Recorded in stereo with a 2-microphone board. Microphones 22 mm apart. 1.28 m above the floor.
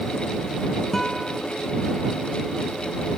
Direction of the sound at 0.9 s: 20° left (ahead or behind).